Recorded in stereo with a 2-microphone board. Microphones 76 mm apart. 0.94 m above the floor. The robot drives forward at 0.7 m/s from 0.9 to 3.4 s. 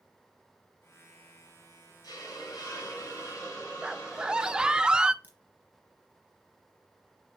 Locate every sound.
2.0 s a hiss: 65° left (ahead or behind), 2.5 m; by 4.8 s 50° left (ahead or behind), 2.5 m
3.8 s a scream: 10° right (ahead or behind), 0.5 m
5.2 s a crack: 25° right (ahead or behind), 2.5 m